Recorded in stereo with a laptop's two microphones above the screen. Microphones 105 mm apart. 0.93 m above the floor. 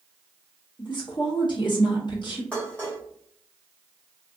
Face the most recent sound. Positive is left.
turn(degrees=10)  # may be behind; listen again after turning